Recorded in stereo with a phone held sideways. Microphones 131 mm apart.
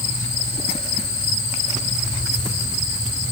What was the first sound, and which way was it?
Only background noise.